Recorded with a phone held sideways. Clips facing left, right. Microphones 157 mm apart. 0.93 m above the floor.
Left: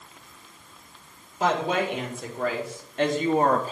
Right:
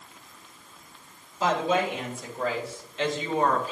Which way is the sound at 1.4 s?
65° left (ahead or behind).